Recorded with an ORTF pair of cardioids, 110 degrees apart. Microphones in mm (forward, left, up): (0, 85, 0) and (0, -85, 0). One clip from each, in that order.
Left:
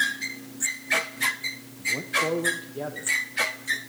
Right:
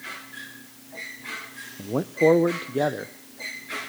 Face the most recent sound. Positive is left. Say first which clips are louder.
# right 3 dB
turn(degrees=-50)